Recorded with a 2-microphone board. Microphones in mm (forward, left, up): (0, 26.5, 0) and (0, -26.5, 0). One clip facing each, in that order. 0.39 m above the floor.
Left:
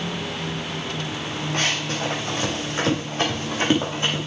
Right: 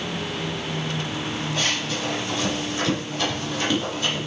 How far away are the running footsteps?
About 5.5 m.